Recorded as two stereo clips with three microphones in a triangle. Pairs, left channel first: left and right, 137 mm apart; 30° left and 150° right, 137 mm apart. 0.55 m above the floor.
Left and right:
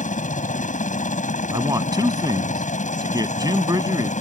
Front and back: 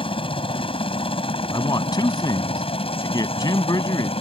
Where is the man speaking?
30° right.